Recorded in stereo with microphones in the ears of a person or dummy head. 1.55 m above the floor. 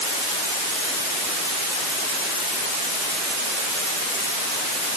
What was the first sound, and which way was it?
Only background noise.